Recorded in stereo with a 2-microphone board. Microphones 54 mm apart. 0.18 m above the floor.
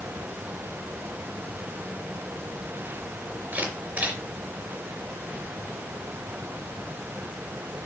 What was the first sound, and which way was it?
A camera shutter, 25° right (ahead or behind).